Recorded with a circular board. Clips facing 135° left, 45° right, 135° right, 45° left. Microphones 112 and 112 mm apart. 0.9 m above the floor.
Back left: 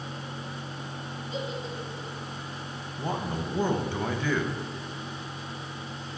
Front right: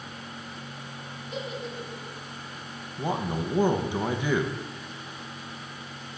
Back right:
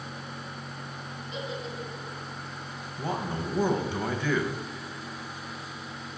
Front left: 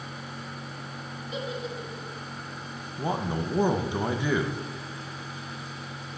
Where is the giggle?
25° right, 1.6 m.